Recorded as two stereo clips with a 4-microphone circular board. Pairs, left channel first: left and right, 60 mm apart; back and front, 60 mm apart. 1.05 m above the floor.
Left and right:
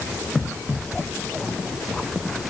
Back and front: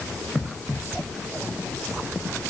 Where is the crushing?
No crushing in this recording.